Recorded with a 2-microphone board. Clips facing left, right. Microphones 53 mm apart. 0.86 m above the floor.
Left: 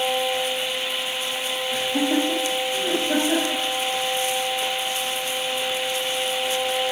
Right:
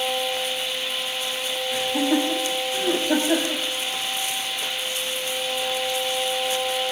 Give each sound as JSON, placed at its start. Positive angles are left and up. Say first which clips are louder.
{"t": 1.7, "sound": "laughter", "louder": "even", "side_deg": 5, "distance_m": 5.5}